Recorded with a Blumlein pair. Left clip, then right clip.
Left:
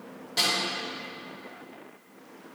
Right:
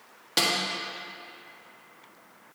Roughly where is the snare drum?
Ahead right.